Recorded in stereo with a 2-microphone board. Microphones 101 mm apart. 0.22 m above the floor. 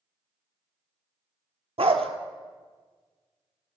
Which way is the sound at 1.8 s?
75° right (ahead or behind).